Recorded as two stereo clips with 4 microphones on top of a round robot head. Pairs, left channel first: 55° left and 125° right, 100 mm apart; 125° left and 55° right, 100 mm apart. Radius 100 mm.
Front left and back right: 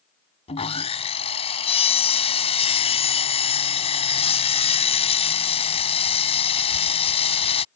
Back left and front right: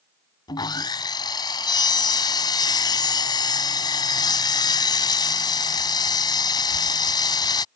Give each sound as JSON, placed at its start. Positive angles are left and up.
{"t": 0.5, "sound": "sawing", "azimuth_deg": 75}